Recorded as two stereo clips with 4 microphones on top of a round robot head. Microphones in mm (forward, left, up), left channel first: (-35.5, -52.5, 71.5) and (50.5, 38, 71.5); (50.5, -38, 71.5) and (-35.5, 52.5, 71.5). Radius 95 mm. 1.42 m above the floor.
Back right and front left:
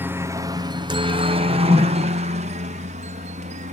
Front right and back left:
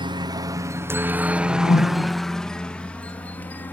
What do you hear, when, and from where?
0.0 s a helicopter: 110° left; by 3.7 s 30° left
1.3 s a whoosh: 25° right